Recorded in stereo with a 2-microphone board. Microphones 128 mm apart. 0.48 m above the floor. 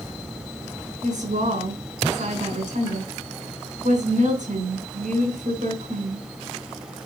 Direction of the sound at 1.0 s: 80° right.